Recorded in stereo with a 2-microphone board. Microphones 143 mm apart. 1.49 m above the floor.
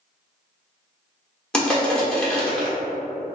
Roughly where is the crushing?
Centre.